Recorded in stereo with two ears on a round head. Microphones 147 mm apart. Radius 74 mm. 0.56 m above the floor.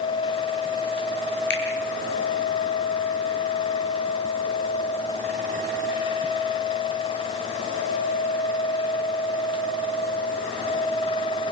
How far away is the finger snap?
About 7 m.